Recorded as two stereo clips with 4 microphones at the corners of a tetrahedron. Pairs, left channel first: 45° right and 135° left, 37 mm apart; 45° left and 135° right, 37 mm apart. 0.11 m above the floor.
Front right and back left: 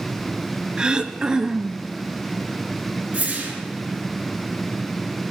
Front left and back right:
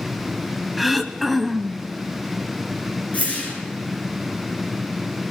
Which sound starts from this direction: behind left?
Throat clearing, at 0.8 s.